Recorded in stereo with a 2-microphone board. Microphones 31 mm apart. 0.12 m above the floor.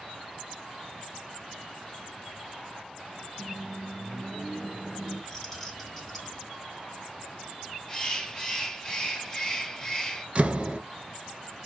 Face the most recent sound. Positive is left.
turn(degrees=-40)  # may be behind; listen again after turning